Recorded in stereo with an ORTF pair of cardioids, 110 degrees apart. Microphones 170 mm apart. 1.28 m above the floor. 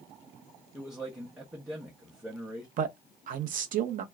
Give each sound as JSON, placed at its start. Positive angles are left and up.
{"t": 0.7, "sound": "a man speaking", "azimuth_deg": 0, "distance_m": 0.9}
{"t": 2.8, "sound": "a man speaking", "azimuth_deg": -55, "distance_m": 0.7}